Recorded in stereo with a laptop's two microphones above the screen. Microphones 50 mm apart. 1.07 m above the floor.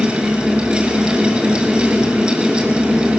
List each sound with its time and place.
0.0 s a fan: 20° right (ahead or behind), 4.5 m